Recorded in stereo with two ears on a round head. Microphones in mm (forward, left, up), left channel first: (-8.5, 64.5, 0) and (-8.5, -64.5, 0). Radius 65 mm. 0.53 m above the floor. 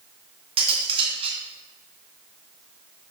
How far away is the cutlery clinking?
About 3 m.